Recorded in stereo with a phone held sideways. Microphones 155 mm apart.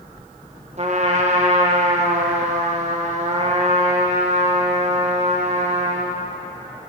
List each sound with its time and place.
0.8 s a trumpet: 45° right (ahead or behind), 1.1 m